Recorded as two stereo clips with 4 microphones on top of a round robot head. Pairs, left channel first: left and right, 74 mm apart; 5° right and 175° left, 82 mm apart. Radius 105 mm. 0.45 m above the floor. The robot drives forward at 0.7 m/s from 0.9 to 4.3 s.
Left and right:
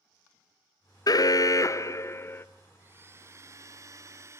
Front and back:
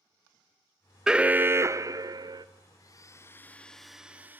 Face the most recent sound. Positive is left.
turn(degrees=-125)